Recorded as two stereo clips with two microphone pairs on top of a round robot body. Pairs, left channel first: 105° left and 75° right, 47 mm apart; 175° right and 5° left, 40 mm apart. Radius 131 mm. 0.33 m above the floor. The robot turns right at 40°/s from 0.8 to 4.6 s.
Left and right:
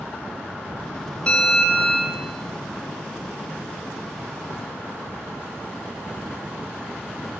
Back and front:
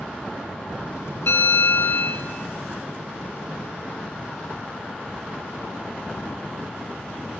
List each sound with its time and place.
1.3 s a bell: 170° left, 5.5 m; by 2.2 s 155° right, 5.5 m